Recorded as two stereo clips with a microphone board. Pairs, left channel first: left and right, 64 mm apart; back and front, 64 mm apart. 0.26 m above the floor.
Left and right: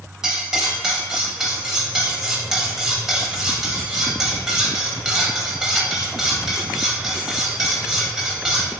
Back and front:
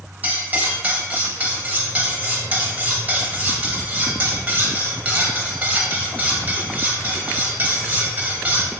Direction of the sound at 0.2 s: 15° right.